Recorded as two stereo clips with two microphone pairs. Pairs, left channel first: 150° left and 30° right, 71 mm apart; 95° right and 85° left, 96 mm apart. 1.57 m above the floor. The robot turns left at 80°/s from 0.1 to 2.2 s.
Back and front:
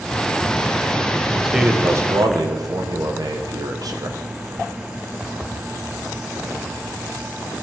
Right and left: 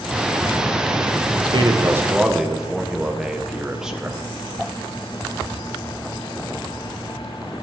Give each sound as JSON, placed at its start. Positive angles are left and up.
{"t": 1.4, "sound": "a man speaking", "azimuth_deg": 60, "distance_m": 1.4}